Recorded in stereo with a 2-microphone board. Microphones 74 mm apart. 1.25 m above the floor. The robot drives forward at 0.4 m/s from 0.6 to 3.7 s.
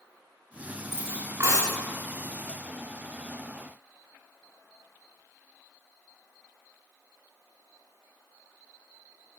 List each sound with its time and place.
0.9 s cutlery clinking: 40° right (ahead or behind), 8.5 m